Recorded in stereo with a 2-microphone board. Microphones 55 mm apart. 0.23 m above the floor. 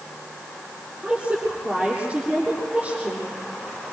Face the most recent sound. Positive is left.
turn(degrees=-25)  # may be behind; listen again after turning